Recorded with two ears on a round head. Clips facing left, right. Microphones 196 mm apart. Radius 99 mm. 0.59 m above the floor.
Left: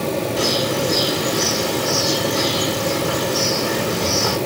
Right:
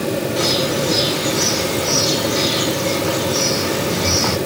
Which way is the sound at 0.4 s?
80° right.